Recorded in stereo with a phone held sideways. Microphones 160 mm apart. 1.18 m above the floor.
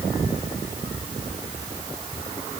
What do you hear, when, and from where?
Only background noise.